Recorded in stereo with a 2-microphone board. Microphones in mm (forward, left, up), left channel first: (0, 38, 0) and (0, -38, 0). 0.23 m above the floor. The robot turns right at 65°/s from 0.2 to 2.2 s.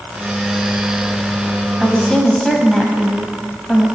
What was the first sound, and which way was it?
A woman speaking, centre (ahead or behind).